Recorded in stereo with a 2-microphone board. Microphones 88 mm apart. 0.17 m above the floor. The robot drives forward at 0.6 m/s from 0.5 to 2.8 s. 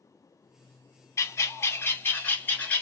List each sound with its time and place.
1.2 s a bird: 30° left (ahead or behind), 0.6 m; by 2.8 s 15° left (ahead or behind), 1.2 m